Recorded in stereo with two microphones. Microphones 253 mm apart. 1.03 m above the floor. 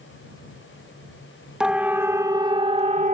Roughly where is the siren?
Centre.